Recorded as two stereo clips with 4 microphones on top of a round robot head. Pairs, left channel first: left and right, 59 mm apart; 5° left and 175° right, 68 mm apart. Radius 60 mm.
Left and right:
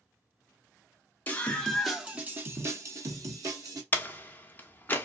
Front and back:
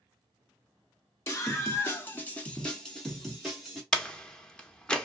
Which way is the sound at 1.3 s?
40° left.